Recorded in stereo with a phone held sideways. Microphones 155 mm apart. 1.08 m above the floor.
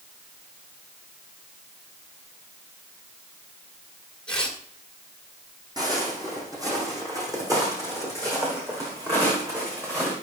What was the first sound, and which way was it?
Tearing paper, 5° left (ahead or behind).